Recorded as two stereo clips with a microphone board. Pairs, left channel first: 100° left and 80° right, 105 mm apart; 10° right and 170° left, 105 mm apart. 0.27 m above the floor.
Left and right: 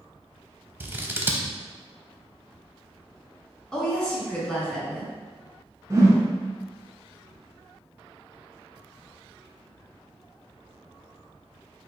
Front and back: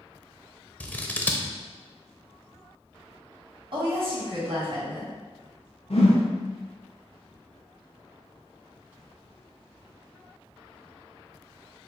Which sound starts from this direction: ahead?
A whoosh, at 5.9 s.